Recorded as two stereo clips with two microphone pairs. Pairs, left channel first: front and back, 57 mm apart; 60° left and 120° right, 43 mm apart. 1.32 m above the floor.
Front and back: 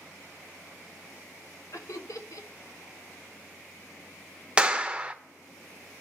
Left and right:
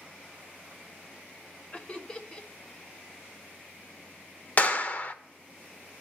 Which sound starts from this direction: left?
A clap, at 4.6 s.